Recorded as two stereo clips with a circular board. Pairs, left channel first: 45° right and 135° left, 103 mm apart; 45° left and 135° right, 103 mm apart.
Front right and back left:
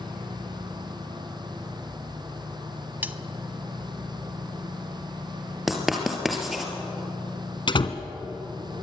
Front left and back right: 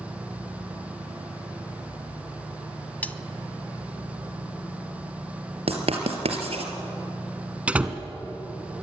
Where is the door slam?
60° right, 1.3 m.